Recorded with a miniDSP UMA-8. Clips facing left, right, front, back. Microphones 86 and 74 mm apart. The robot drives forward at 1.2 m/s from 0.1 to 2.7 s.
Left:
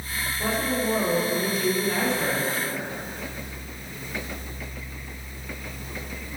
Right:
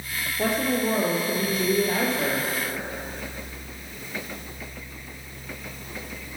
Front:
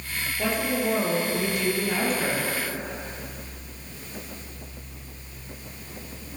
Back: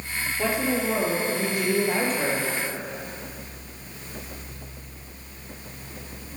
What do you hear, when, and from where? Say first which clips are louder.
0.4 s a woman speaking: right 2 dB, back 1 dB; 100° right, 3 m; by 2.5 s 135° right, 4 m